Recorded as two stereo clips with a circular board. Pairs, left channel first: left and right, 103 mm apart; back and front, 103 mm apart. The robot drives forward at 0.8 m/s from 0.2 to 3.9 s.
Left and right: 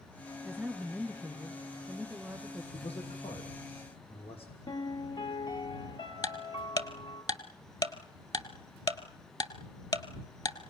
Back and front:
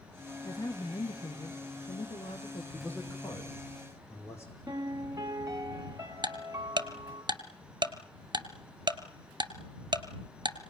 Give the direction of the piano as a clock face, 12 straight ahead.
10 o'clock.